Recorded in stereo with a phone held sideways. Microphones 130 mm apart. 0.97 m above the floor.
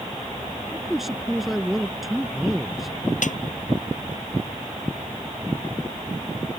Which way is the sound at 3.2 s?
80° left.